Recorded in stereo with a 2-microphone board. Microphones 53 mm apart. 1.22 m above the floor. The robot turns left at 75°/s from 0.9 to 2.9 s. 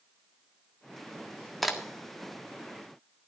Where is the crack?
5° left (ahead or behind), 1.6 m; by 1.8 s 10° right (ahead or behind), 1.6 m.